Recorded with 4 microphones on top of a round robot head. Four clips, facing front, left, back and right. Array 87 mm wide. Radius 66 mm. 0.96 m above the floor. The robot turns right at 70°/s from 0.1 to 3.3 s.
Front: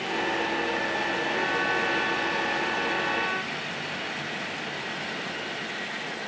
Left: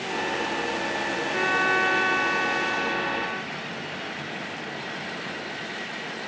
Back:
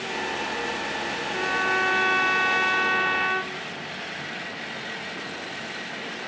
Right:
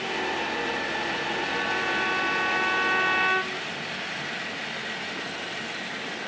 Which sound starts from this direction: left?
A violin, at 1.3 s.